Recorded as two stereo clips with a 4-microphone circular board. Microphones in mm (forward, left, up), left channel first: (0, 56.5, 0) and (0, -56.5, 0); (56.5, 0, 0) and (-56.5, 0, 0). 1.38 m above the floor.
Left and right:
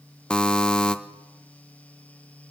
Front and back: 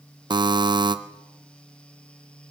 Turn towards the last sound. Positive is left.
turn(degrees=170)